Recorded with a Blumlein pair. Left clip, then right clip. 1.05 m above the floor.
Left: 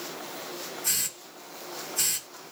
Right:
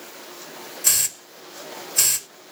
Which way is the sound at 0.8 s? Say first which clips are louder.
Right 9 dB; 50° right.